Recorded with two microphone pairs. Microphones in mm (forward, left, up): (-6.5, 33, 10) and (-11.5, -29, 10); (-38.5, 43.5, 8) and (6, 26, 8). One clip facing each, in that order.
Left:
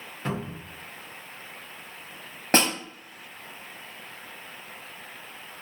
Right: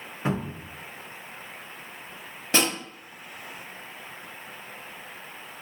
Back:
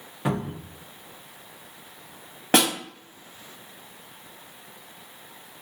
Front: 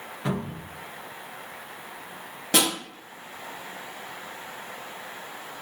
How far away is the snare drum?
About 1.5 m.